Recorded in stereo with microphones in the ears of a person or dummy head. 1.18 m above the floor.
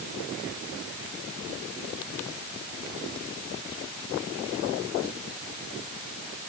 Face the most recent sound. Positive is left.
No sound to turn to.